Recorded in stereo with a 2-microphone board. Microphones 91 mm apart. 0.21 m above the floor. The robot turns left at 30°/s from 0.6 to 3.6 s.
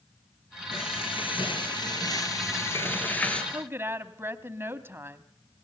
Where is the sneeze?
No sneeze in this recording.